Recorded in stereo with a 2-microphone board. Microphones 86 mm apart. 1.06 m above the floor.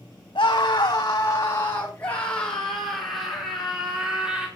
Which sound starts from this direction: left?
A scream, at 0.3 s.